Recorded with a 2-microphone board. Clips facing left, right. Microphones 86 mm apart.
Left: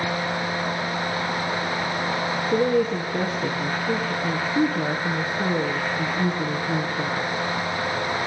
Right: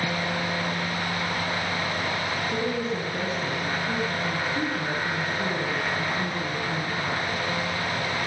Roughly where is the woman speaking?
Left.